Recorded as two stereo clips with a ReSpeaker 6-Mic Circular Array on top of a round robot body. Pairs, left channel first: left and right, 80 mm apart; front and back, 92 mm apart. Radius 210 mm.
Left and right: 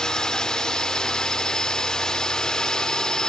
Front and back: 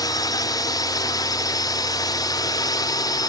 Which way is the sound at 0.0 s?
10° left.